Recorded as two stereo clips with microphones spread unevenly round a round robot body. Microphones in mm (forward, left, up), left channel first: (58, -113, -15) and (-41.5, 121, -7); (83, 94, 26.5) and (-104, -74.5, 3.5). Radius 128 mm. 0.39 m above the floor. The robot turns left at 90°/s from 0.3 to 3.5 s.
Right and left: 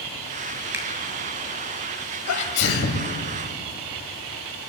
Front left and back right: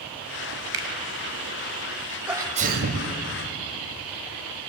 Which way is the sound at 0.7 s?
165° right.